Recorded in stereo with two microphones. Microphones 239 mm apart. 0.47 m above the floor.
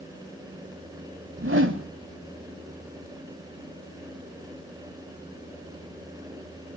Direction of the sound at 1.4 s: 55° right (ahead or behind).